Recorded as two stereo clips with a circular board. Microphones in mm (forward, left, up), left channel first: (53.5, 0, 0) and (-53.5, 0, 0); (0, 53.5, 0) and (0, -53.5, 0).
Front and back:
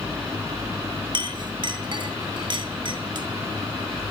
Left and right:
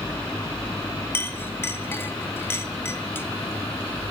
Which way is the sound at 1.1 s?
155° left.